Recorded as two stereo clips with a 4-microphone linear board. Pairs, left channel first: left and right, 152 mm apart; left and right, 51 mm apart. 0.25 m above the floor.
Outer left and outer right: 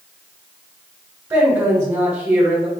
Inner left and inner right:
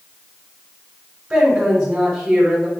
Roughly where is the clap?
I don't hear a clap.